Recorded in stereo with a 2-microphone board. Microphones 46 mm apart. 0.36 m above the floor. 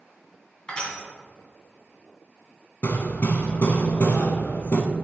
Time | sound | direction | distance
0.7 | crushing | 25° left (ahead or behind) | 2.5 m
2.8 | hammering | 50° left (ahead or behind) | 1.0 m